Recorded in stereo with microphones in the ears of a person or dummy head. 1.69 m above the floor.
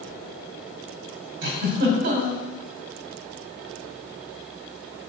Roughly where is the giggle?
Right.